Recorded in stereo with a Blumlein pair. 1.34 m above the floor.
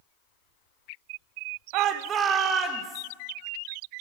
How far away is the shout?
About 0.8 m.